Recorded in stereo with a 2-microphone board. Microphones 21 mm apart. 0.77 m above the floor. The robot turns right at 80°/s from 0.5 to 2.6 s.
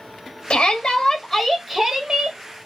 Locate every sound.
0.5 s a shout: 95° left, 1.1 m; by 2.4 s 115° right, 1.1 m